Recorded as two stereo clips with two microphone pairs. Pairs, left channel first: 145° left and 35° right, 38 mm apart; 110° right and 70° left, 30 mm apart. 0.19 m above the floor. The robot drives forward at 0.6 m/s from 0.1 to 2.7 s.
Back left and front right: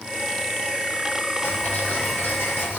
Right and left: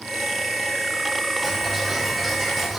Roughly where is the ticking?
Behind.